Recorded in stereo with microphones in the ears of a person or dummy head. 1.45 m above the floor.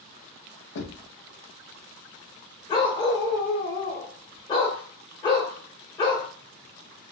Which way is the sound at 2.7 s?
25° left (ahead or behind).